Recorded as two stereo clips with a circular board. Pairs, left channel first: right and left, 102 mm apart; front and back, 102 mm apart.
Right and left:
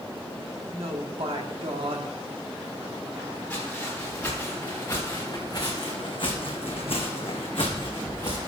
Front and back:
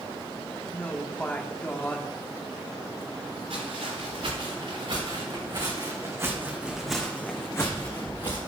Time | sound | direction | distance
0.7 | a woman speaking | 75° left | 1.5 m
3.5 | footsteps | 165° right | 5 m